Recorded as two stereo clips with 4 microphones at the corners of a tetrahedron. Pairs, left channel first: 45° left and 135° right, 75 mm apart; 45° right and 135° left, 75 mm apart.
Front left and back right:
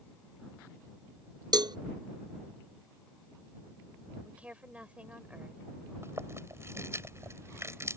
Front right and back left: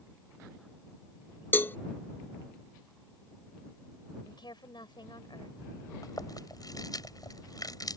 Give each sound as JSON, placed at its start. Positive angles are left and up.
{"t": 1.5, "sound": "a cowbell", "azimuth_deg": -110}
{"t": 4.2, "sound": "a woman speaking", "azimuth_deg": -60}
{"t": 6.0, "sound": "chewing", "azimuth_deg": -80}